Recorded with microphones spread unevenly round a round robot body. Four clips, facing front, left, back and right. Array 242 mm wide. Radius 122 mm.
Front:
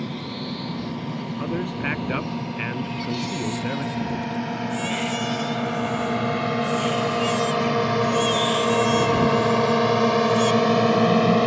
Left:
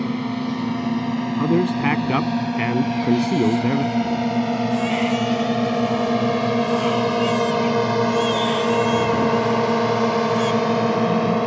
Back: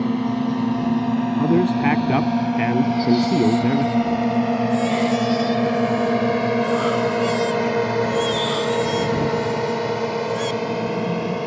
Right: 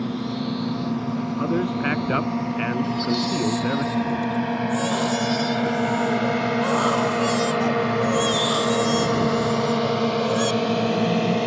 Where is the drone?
160° left; by 11.5 s 25° left.